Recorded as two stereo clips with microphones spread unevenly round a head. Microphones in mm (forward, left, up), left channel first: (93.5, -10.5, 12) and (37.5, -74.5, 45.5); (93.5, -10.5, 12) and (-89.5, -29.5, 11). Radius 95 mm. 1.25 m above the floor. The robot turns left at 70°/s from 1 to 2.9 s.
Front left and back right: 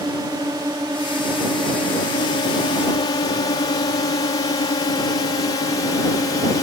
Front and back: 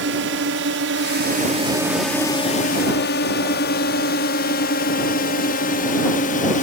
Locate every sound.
0.0 s a drone: 160° left; by 6.6 s 50° left